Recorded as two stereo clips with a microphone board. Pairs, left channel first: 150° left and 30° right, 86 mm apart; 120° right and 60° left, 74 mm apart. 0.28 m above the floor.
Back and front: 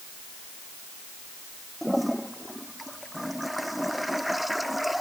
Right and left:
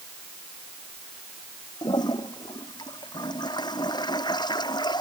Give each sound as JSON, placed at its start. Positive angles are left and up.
{"t": 1.8, "sound": "a toilet flushing", "azimuth_deg": -120}